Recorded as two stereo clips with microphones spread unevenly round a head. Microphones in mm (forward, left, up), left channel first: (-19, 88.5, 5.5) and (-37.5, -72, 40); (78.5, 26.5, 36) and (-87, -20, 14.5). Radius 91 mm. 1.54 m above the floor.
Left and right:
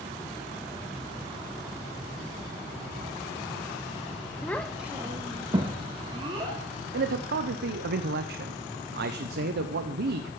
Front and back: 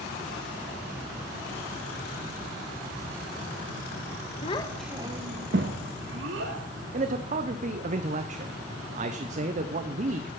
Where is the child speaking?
5° right, 0.9 m; by 6.6 s 150° right, 2 m.